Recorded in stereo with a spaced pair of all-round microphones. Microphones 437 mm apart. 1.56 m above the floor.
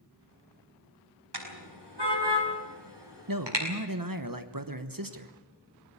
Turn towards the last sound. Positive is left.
turn(degrees=-50)  # may be behind; listen again after turning